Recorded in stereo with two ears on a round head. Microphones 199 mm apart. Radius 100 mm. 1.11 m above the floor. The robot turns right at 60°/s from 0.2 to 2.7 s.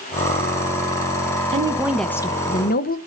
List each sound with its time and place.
1.5 s a woman speaking: 25° right, 0.7 m; by 3.0 s 45° left, 0.7 m